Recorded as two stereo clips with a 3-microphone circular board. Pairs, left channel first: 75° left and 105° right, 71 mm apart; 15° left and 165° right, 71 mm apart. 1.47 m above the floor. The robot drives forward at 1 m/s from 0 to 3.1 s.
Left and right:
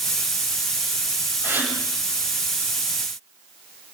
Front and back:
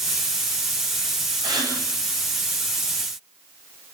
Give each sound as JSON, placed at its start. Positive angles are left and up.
{"t": 1.4, "sound": "a gasp", "azimuth_deg": -165, "distance_m": 8.5}